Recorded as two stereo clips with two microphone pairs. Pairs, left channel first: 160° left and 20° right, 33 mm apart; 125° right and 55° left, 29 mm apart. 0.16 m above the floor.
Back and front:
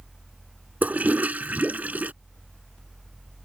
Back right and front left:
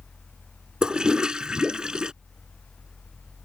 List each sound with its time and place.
0.8 s a toilet flushing: 5° right